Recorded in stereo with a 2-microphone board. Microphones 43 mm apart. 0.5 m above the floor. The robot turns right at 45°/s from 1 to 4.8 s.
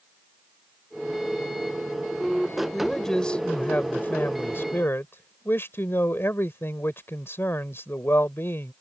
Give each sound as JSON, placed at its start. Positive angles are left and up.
{"t": 2.7, "sound": "a man speaking", "azimuth_deg": 0}